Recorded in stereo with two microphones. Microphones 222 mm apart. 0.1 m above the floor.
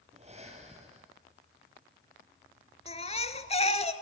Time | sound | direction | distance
0.1 | breathing | 30° right (ahead or behind) | 3 m
2.9 | a baby crying | 30° left (ahead or behind) | 1.0 m